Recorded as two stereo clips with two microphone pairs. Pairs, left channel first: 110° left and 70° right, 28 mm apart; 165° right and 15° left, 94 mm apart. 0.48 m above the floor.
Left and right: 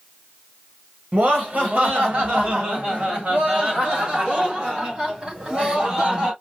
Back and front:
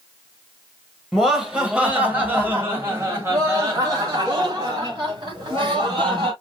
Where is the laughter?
70° right, 2 m; by 6.3 s 20° right, 3.5 m.